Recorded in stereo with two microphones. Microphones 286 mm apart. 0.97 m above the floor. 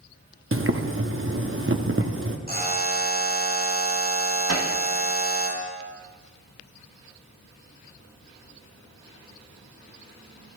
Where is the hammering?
60° right (ahead or behind), 1.3 m.